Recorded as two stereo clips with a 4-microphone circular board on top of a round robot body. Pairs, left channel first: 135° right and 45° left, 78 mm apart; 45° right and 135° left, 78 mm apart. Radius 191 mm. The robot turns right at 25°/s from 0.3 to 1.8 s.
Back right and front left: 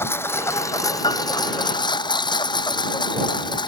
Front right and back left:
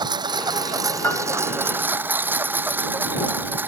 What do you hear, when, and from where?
0.0 s a lawn mower: 165° left; by 3.7 s 155° right
1.0 s a piano: 110° right; by 1.2 s 105° right